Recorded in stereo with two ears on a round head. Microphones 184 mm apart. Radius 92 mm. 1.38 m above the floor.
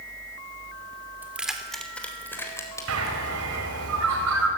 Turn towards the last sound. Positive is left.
turn(degrees=-80)